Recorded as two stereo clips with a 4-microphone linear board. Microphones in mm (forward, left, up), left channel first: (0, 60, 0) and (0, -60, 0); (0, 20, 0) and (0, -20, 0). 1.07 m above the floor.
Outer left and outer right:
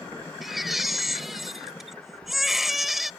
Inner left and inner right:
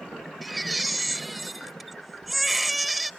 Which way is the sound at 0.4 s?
Centre (ahead or behind).